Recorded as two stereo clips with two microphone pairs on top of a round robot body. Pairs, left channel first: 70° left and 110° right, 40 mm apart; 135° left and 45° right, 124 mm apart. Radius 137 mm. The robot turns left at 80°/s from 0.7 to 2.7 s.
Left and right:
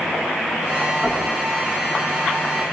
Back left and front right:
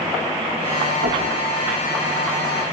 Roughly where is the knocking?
Ahead right.